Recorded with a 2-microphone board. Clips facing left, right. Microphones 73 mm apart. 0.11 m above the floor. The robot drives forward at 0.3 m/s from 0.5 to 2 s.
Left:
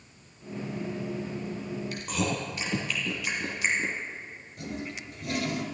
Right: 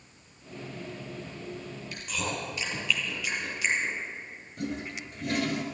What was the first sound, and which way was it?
Chewing, 30° left (ahead or behind).